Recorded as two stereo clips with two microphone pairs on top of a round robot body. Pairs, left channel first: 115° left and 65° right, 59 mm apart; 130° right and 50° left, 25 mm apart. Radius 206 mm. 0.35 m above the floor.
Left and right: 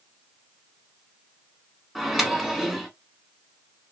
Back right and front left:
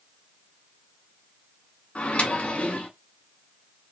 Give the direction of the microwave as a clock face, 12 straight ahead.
5 o'clock.